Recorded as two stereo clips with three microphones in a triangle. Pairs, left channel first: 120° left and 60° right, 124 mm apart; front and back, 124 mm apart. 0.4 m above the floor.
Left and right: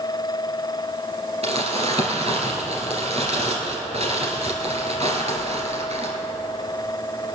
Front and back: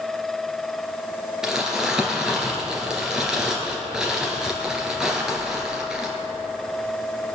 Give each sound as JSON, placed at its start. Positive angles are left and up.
{"t": 1.4, "sound": "crumpling", "azimuth_deg": -95, "distance_m": 2.5}